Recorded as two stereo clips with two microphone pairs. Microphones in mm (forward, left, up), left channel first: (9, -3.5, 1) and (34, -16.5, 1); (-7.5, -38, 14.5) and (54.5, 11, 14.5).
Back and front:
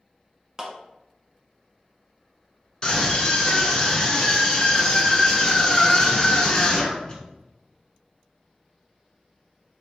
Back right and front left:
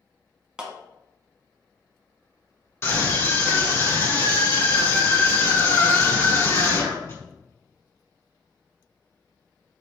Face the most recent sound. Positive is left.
turn(degrees=-165)